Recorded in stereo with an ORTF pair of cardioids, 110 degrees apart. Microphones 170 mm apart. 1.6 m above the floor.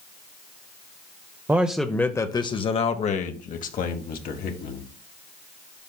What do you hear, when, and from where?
1.5 s a man speaking: 15° right, 0.7 m; by 4.8 s 65° left, 1.8 m